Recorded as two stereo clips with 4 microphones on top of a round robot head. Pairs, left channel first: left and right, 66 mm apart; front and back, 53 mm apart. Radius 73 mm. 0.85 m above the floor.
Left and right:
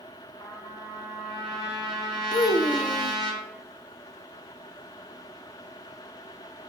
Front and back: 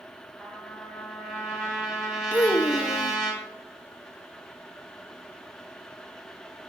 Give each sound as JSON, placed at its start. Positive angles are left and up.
{"t": 0.4, "sound": "a trumpet", "azimuth_deg": 85, "distance_m": 4.0}
{"t": 2.3, "sound": "a child speaking", "azimuth_deg": 65, "distance_m": 0.6}